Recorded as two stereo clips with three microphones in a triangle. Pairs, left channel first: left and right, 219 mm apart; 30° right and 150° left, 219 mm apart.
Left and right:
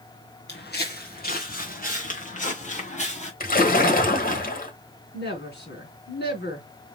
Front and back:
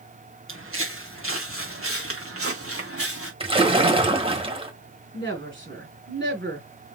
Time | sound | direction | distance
0.5 | footsteps | 130° left | 2.5 m
3.4 | a splash | 100° left | 1.4 m
5.1 | a woman speaking | 125° left | 4 m